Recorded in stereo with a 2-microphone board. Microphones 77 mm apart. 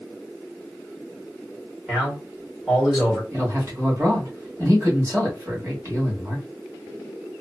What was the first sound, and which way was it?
A man speaking, 20° right (ahead or behind).